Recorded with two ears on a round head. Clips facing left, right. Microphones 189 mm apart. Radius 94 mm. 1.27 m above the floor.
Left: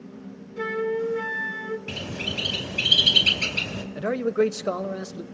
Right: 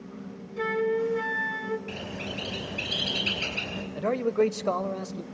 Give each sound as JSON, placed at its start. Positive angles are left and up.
{"t": 0.6, "sound": "a flute", "side_deg": 5, "distance_m": 1.2}
{"t": 1.9, "sound": "a bird", "side_deg": 45, "distance_m": 4.0}
{"t": 4.0, "sound": "a man speaking", "side_deg": 15, "distance_m": 1.1}